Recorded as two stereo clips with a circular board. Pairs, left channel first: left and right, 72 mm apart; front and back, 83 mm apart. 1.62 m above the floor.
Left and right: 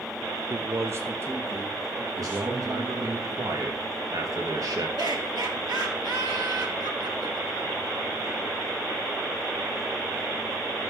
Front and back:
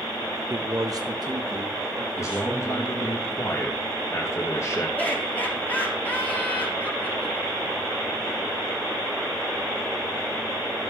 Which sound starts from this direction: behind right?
A man speaking, at 0.5 s.